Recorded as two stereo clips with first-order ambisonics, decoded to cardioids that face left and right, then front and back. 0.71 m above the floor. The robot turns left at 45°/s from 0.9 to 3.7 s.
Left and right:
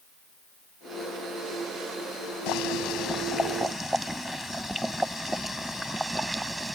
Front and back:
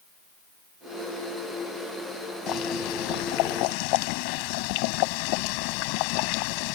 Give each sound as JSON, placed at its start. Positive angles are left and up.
{"t": 2.5, "sound": "boiling", "azimuth_deg": 50}